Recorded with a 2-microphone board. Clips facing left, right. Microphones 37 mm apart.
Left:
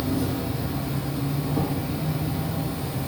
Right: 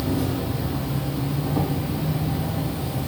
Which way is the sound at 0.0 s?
45° right (ahead or behind).